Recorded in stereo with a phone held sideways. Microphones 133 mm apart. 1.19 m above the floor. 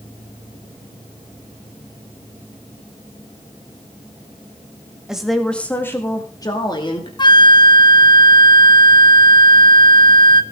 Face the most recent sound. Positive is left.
turn(degrees=35)  # may be behind; listen again after turning